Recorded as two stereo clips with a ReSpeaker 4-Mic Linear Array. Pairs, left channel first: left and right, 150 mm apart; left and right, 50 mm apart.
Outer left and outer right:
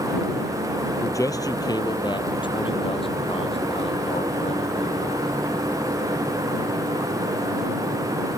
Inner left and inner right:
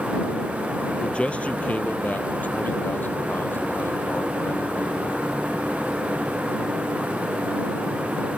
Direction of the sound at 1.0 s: 20° left (ahead or behind).